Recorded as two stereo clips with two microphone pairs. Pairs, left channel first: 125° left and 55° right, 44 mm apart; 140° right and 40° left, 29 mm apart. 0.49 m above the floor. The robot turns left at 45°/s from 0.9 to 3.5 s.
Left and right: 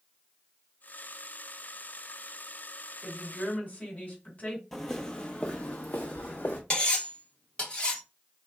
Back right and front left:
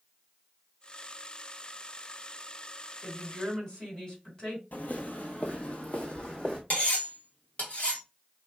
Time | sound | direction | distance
3.0 | a woman speaking | 175° right | 1.9 m
4.7 | footsteps | 155° right | 0.7 m
6.7 | cutlery clinking | 175° right | 1.0 m